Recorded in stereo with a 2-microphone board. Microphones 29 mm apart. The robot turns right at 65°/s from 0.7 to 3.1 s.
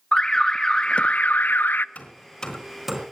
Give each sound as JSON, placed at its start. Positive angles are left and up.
{"t": 0.1, "sound": "an alarm", "azimuth_deg": 25, "distance_m": 0.6}
{"t": 1.9, "sound": "hammering", "side_deg": 55, "distance_m": 3.5}